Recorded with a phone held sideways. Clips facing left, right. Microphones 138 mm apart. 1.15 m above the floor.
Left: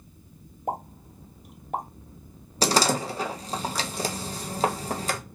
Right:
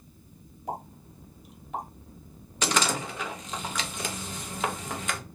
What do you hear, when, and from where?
0.7 s a pop: 55° left (ahead or behind), 1.1 m
2.6 s a door slam: 40° left (ahead or behind), 0.6 m